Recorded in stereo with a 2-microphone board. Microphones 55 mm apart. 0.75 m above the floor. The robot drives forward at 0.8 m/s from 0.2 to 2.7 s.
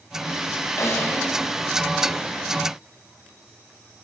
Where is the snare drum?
60° left (ahead or behind), 6 m; by 1.2 s 55° left (ahead or behind), 6 m.